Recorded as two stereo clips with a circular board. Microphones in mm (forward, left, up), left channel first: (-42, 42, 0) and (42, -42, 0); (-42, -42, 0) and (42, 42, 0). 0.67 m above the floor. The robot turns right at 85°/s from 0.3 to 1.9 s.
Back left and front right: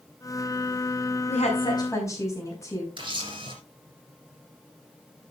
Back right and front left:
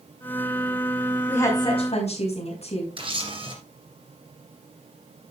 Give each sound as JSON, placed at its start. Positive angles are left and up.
{"t": 1.3, "sound": "a woman speaking", "azimuth_deg": 145, "distance_m": 5.5}
{"t": 3.0, "sound": "a camera shutter", "azimuth_deg": 0, "distance_m": 3.0}